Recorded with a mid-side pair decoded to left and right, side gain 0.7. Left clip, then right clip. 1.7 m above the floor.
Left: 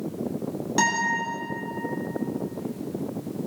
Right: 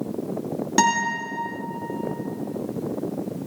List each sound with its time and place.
0.8 s a guitar: 25° right, 2.5 m